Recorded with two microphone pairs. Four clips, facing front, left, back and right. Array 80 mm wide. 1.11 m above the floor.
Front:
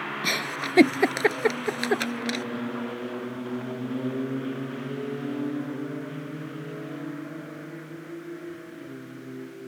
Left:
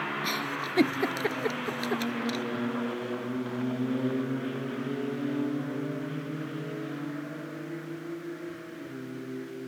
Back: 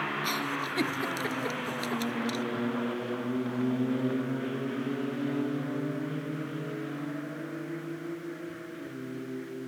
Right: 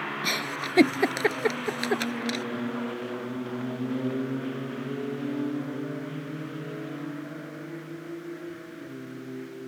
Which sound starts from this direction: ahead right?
A giggle, at 0.2 s.